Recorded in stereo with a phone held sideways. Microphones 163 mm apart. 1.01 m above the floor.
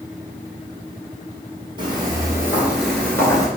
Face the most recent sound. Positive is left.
turn(degrees=25)  # may be behind; listen again after turning